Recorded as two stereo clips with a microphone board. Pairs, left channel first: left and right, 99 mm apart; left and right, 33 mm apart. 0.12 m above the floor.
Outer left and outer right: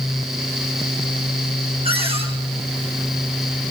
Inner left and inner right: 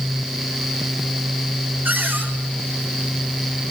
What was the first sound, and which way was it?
A cupboard door, 75° right (ahead or behind).